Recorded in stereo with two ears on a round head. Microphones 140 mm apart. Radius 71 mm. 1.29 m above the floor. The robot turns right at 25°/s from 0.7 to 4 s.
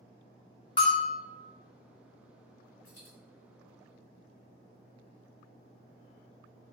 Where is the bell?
30° left (ahead or behind), 0.7 m; by 1.2 s 40° left (ahead or behind), 0.7 m.